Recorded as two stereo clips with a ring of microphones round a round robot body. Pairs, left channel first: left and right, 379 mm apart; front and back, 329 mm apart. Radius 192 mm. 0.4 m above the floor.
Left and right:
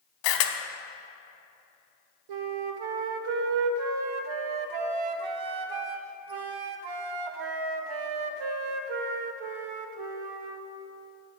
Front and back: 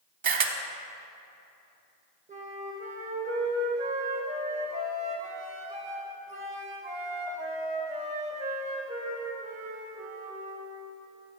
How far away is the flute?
About 0.6 m.